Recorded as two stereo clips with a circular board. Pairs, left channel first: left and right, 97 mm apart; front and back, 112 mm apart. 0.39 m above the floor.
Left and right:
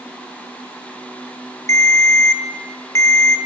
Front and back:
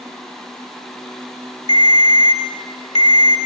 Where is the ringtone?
30° left, 0.6 m.